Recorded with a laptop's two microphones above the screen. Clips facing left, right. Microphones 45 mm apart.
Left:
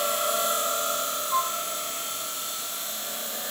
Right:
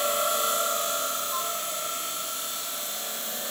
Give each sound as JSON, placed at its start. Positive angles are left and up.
{"t": 1.3, "sound": "a flute", "side_deg": 30}